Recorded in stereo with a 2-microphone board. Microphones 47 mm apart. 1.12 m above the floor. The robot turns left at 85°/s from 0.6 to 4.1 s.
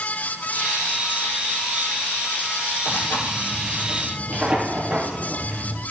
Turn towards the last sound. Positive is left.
turn(degrees=-20)